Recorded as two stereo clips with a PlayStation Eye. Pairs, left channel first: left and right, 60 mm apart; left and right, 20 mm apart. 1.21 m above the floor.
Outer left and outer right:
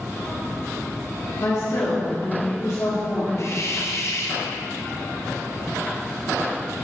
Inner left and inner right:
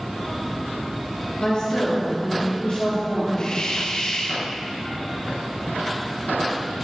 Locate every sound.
1.4 s a woman speaking: 60° left (ahead or behind), 2 m; by 3.3 s 70° left (ahead or behind), 3 m
3.4 s a hiss: 50° left (ahead or behind), 0.7 m